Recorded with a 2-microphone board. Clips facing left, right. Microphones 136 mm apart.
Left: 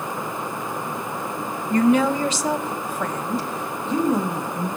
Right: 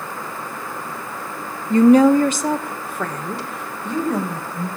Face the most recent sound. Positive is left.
turn(degrees=-65)  # may be behind; listen again after turning